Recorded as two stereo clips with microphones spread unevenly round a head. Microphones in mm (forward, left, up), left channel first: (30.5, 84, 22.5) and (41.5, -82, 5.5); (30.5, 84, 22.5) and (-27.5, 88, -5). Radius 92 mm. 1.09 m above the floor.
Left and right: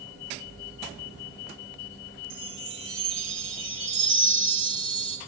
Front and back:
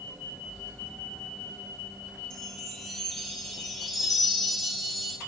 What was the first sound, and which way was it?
A chime, 85° right.